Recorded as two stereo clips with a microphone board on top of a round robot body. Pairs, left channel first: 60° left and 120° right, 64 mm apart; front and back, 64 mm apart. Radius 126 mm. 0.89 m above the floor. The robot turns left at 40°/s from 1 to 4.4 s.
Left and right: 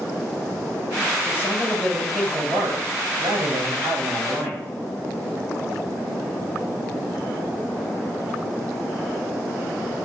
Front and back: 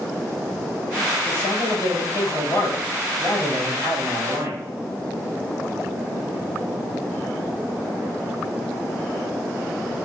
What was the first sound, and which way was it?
A man speaking, 5° right.